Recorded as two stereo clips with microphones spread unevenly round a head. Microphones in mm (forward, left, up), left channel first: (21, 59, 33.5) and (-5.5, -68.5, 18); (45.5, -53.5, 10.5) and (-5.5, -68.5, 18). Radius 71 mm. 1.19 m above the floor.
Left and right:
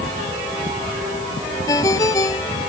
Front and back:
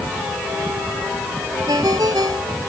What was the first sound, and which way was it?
A ringtone, 145° left.